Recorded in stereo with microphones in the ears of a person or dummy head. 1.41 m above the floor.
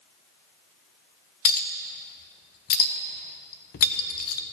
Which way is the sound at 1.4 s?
50° left (ahead or behind).